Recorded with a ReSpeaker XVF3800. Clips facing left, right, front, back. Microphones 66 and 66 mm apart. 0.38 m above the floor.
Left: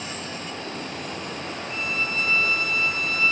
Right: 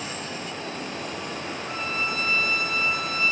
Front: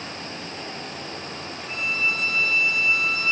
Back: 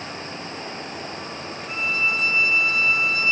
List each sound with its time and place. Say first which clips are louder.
1.7 s a violin: even, back 2 dB; 110° right, 4.5 m